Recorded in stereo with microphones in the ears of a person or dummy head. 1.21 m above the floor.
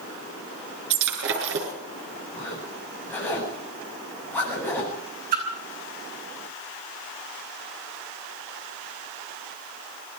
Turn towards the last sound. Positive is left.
turn(degrees=-55)  # may be behind; listen again after turning